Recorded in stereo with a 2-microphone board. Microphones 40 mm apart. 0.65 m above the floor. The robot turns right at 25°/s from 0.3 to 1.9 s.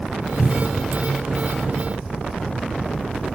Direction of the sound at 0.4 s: 30° left (ahead or behind).